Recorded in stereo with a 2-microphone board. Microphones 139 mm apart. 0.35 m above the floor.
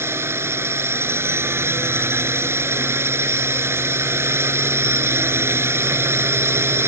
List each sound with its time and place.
0.0 s a drone: 15° right (ahead or behind)